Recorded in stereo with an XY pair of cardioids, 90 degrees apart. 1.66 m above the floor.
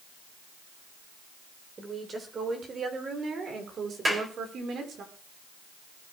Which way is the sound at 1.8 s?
40° right.